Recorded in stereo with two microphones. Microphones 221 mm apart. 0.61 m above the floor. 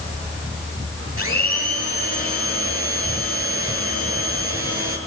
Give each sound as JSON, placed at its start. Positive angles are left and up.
{"t": 1.2, "sound": "a blender", "side_deg": -80, "distance_m": 7.0}